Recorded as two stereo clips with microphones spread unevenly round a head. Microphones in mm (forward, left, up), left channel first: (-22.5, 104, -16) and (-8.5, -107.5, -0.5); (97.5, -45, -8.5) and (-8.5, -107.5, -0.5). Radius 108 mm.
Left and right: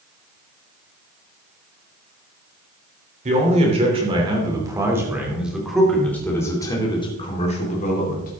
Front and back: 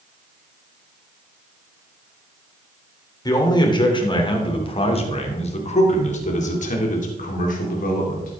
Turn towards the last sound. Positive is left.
turn(degrees=40)